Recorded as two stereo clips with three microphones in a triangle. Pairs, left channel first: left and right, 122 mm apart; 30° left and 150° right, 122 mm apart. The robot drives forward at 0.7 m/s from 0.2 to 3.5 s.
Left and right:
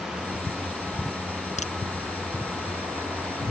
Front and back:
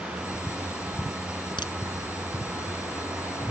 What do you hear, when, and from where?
1.6 s a crack: 80° left